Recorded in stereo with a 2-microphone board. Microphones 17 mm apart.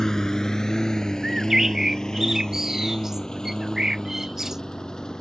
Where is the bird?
30° right (ahead or behind).